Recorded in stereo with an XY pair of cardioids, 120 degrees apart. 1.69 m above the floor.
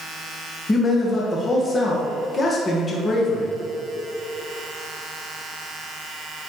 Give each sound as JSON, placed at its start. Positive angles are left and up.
{"t": 0.7, "sound": "a man speaking", "azimuth_deg": 25, "distance_m": 2.0}